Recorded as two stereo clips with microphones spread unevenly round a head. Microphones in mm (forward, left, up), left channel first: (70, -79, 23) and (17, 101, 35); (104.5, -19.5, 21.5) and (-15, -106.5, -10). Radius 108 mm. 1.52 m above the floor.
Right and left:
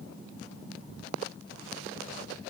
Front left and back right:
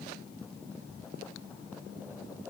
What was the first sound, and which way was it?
Only background noise.